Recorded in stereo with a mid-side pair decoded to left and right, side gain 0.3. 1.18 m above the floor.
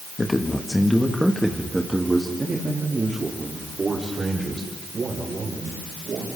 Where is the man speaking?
25° left, 2 m; by 6.3 s 60° right, 6.5 m.